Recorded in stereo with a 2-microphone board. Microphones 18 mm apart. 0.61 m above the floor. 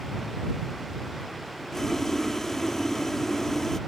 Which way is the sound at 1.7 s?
20° left (ahead or behind).